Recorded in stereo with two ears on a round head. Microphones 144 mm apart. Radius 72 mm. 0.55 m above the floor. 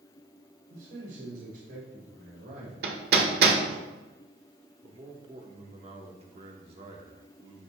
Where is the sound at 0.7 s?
65° right (ahead or behind), 2.5 m; by 3.8 s 50° right (ahead or behind), 3 m.